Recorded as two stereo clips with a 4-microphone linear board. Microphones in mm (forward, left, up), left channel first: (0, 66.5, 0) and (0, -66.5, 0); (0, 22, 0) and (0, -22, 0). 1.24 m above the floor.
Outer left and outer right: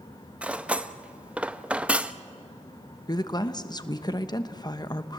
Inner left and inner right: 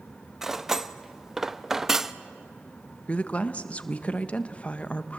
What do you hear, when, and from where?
0.4 s cutlery clinking: 10° right (ahead or behind), 0.5 m
3.1 s a woman speaking: 30° left (ahead or behind), 0.9 m